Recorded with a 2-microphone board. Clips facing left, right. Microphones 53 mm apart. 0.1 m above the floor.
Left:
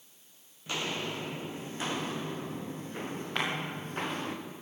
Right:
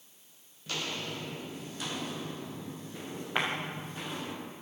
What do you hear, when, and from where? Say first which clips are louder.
0.7 s footsteps: left 2 dB; 20° left (ahead or behind), 2.5 m; by 4.3 s 45° left (ahead or behind), 4.5 m
3.4 s a clap: right 2 dB; 15° right (ahead or behind), 9.5 m